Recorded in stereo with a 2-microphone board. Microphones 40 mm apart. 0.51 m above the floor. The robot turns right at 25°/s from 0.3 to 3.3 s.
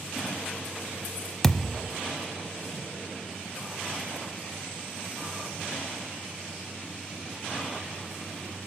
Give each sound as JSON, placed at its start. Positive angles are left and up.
{"t": 1.4, "sound": "a thud", "side_deg": 15, "distance_m": 0.7}